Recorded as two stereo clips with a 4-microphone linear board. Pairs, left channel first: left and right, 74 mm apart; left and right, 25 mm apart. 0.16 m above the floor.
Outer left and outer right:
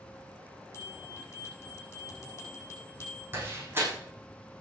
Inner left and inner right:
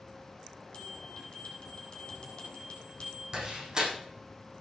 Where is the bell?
35° left (ahead or behind), 5.5 m.